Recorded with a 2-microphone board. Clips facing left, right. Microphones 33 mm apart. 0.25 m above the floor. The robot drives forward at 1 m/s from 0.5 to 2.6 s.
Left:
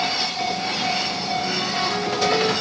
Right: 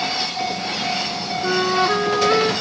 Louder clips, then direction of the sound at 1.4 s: Right 10 dB; 65° right (ahead or behind).